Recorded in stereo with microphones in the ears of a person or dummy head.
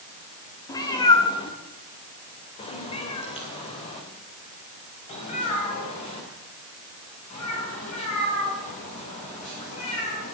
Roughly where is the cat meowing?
Left.